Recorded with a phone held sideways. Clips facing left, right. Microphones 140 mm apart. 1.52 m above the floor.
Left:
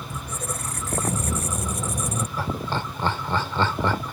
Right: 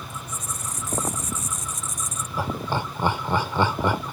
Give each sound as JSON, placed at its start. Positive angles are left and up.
{"t": 0.1, "sound": "a squeak", "side_deg": 65}
{"t": 2.4, "sound": "laughter", "side_deg": -15}